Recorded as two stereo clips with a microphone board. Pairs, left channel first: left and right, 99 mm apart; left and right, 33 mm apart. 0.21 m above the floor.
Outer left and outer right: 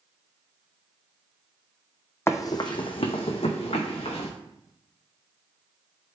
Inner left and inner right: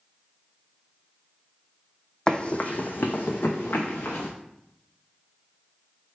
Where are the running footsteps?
25° left (ahead or behind), 0.5 m; by 4.3 s 85° left, 1.4 m.